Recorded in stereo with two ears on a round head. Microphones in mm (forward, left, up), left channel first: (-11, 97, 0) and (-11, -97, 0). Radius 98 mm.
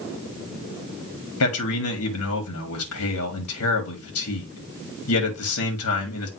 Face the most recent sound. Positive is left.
turn(degrees=80)